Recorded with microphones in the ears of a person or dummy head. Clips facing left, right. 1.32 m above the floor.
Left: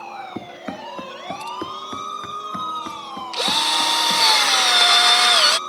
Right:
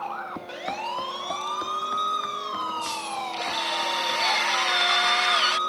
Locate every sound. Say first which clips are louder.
0.3 s running footsteps: left 4 dB; 25° left (ahead or behind); by 4.3 s 60° left (ahead or behind)
3.3 s a drill: left 5 dB; 65° left (ahead or behind)